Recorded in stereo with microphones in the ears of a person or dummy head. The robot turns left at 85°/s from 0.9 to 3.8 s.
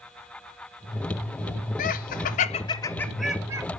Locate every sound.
1.8 s laughter: 35° left (ahead or behind), 0.6 m; by 3.6 s 25° right (ahead or behind), 0.6 m